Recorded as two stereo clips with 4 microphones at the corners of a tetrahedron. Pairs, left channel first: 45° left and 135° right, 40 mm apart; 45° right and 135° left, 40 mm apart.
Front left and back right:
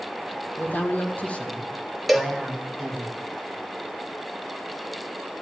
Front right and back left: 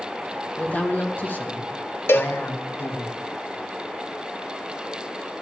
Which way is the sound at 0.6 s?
10° left.